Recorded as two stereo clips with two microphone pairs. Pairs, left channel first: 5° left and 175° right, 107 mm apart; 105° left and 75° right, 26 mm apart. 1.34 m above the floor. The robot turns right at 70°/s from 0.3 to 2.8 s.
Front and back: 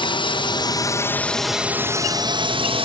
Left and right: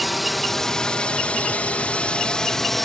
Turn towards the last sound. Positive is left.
turn(degrees=-175)